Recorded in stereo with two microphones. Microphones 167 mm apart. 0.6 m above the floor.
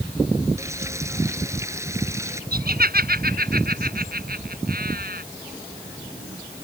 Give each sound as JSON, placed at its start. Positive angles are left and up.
{"t": 0.6, "sound": "frying", "side_deg": -15}
{"t": 2.5, "sound": "laughter", "side_deg": -65}